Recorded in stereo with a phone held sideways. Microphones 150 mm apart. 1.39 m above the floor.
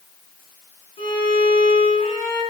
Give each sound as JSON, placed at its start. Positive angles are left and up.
{"t": 1.0, "sound": "a violin", "side_deg": 40, "distance_m": 7.5}